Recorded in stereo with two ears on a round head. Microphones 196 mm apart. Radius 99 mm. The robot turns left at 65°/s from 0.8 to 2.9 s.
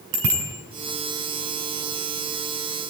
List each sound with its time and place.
0.1 s a bicycle bell: 65° right (ahead or behind), 6 m